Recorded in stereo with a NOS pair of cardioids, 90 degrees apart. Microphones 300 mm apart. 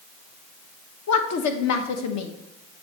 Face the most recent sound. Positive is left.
turn(degrees=65)